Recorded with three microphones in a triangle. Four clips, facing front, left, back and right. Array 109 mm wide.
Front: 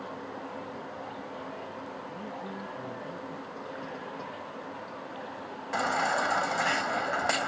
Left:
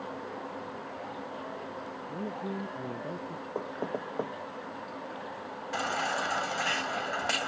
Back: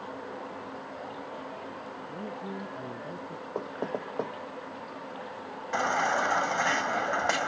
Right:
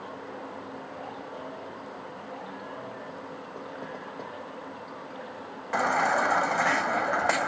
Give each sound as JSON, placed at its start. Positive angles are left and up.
{"t": 2.1, "sound": "a man speaking", "azimuth_deg": 110}
{"t": 3.5, "sound": "knocking", "azimuth_deg": 145}
{"t": 5.7, "sound": "a baby crying", "azimuth_deg": -100}